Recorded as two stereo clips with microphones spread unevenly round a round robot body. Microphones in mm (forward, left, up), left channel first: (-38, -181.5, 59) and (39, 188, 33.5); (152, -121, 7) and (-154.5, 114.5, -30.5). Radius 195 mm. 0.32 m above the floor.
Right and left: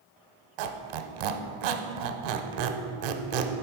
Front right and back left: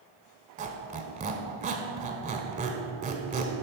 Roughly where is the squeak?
Left.